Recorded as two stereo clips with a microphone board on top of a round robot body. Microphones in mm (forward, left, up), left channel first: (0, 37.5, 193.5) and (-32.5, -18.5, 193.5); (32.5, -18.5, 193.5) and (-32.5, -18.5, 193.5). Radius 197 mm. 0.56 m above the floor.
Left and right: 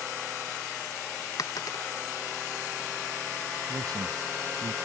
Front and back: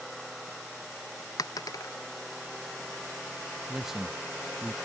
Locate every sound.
1.4 s a dropped coin: 25° left
3.7 s a man speaking: 95° right